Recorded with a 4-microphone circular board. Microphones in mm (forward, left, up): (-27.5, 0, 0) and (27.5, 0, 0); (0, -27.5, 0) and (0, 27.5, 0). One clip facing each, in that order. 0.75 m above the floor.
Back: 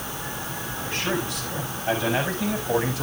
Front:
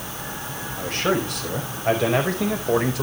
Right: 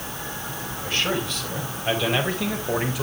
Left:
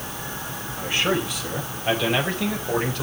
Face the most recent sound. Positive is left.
turn(degrees=-10)